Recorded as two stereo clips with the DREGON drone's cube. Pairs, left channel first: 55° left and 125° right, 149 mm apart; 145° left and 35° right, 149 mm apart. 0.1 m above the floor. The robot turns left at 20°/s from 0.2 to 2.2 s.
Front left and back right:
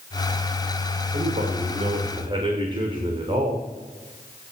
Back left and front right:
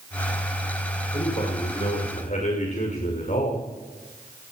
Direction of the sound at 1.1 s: 160° right.